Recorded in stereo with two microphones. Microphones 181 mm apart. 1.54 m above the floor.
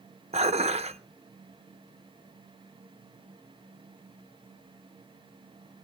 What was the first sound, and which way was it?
Dishes clattering, 35° right (ahead or behind).